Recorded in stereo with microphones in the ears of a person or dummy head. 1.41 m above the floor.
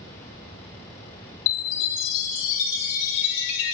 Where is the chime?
70° left (ahead or behind), 1.5 m.